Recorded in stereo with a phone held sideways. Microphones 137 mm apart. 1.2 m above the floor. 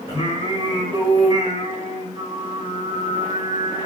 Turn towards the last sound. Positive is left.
turn(degrees=-35)  # may be behind; listen again after turning